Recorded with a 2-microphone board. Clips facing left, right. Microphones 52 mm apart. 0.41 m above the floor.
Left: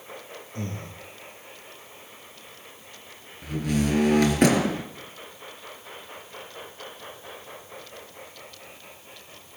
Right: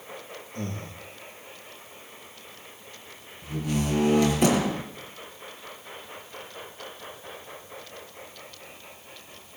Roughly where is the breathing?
Left.